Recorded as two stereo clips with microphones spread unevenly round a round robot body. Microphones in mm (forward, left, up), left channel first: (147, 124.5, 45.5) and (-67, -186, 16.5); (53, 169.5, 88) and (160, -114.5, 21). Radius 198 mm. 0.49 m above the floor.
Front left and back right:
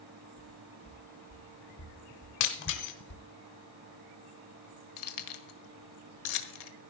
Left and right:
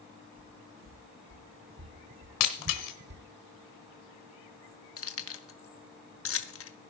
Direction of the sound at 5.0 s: 60° left.